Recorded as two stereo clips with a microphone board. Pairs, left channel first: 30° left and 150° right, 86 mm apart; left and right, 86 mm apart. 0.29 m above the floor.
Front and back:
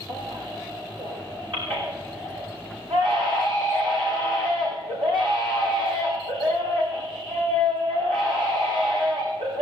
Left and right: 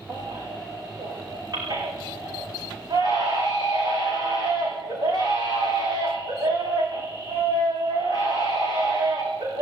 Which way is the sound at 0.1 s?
130° right.